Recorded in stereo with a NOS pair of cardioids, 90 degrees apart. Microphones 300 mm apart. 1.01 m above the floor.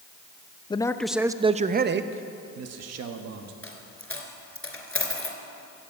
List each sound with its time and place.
0.7 s a man speaking: 15° left, 0.7 m; by 3.5 s 70° right, 1.4 m
3.6 s a dropped coin: 5° left, 2.5 m